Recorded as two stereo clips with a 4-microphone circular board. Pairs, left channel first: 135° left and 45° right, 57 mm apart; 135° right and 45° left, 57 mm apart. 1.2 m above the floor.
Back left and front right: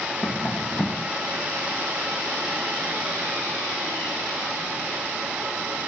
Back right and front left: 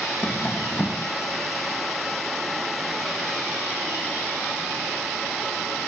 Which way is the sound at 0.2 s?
Straight behind.